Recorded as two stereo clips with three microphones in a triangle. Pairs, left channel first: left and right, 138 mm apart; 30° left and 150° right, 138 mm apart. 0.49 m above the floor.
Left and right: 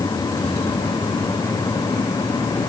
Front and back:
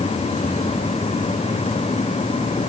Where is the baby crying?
I don't hear a baby crying.